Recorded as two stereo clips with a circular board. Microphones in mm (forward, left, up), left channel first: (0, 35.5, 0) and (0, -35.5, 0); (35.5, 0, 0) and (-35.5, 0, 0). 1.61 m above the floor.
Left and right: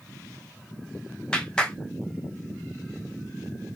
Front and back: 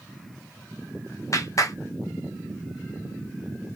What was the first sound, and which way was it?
A clap, 15° left.